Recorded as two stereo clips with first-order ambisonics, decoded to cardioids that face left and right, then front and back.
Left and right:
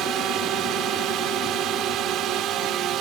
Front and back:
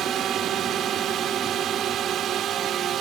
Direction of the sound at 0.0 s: 130° right.